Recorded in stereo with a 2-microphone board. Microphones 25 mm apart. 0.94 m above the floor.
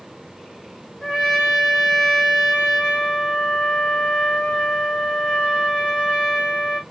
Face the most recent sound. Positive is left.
turn(degrees=25)  # may be behind; listen again after turning